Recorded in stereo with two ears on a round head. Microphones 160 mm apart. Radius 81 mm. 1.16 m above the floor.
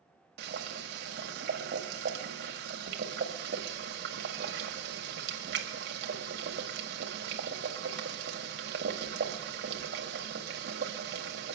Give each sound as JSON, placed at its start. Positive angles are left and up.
{"t": 0.4, "sound": "boiling", "side_deg": -60, "distance_m": 1.8}